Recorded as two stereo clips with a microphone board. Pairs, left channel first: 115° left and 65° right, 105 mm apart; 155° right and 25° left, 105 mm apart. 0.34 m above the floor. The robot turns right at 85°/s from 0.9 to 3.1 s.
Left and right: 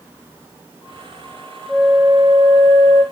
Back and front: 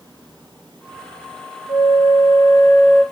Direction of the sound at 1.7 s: Straight behind.